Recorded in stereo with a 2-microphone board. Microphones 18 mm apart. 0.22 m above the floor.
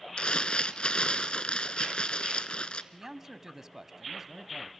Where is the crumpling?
70° left (ahead or behind), 1.1 m.